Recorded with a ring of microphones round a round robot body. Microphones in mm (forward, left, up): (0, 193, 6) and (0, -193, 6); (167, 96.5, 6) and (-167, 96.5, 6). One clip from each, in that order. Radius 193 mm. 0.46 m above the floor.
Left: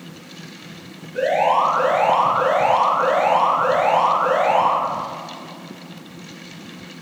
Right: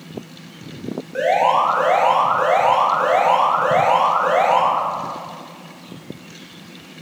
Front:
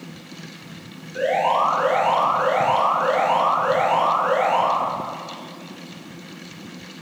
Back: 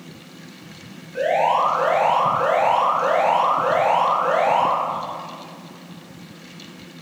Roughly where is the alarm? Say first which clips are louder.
Right 1 dB, back 1 dB; right.